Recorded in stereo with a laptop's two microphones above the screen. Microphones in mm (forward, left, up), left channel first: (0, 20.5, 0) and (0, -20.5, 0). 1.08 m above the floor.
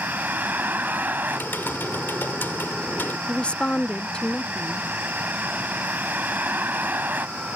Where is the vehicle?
50° right (ahead or behind).